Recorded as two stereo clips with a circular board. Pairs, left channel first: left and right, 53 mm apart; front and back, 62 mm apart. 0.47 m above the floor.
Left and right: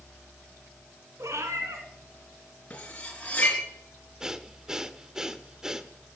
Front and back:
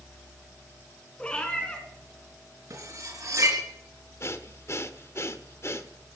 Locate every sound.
1.2 s a cat meowing: 75° right, 2.5 m
2.7 s cutlery clinking: 155° left, 3.5 m
4.2 s breathing: 15° right, 0.8 m